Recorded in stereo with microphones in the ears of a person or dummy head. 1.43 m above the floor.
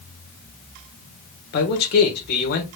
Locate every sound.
1.5 s a man speaking: 50° left (ahead or behind), 1.3 m